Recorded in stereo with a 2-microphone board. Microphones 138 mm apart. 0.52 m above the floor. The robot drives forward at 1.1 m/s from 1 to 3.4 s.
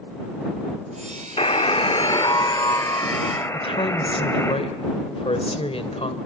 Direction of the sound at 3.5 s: 45° left (ahead or behind).